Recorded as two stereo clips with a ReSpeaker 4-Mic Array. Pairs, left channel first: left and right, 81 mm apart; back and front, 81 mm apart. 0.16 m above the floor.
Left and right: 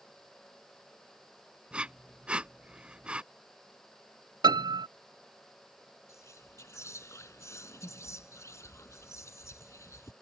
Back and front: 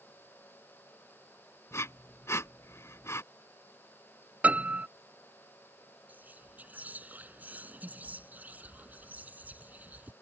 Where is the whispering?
60° left.